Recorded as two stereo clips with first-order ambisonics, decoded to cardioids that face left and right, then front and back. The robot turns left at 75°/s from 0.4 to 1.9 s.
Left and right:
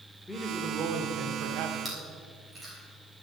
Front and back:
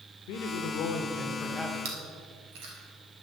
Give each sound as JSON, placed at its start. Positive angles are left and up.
{"t": 0.3, "sound": "a man speaking", "azimuth_deg": -5, "distance_m": 1.3}
{"t": 1.9, "sound": "chewing", "azimuth_deg": -175, "distance_m": 3.5}